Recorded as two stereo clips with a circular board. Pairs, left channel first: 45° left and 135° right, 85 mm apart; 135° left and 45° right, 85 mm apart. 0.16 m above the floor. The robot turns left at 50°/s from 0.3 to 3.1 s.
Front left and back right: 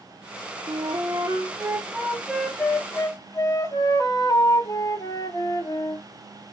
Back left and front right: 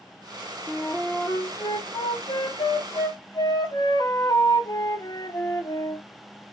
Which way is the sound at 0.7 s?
145° right.